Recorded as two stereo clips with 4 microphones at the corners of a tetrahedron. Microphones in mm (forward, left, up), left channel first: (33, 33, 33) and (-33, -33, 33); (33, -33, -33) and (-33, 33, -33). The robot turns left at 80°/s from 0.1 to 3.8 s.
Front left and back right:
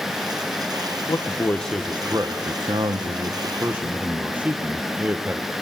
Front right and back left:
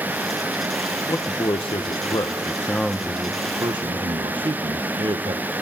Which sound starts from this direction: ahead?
A man speaking, at 1.1 s.